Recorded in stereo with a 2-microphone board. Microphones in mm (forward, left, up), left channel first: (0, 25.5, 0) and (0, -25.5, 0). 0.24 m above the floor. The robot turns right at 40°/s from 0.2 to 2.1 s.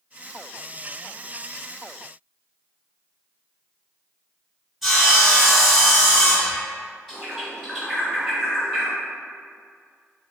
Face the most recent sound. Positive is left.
turn(degrees=0)  # may be behind; listen again after turning